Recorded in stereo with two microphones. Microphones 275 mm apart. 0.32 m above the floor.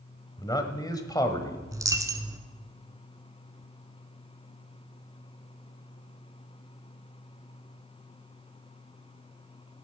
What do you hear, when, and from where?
0.4 s a man speaking: 15° left (ahead or behind), 1.4 m
1.7 s a dropped coin: 10° right (ahead or behind), 1.0 m